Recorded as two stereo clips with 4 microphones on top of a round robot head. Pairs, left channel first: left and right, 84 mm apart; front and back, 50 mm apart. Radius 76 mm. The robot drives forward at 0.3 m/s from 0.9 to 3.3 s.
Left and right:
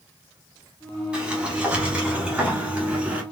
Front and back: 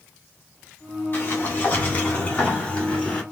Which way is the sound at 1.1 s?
20° right.